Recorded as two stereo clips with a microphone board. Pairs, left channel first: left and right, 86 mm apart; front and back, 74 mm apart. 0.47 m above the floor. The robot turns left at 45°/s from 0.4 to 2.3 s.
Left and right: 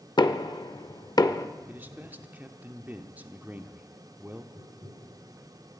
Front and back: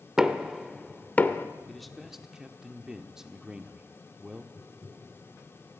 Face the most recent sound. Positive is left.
turn(degrees=-55)